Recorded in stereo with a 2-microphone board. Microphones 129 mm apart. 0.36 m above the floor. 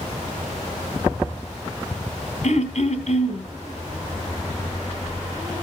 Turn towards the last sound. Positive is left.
turn(degrees=65)  # may be behind; listen again after turning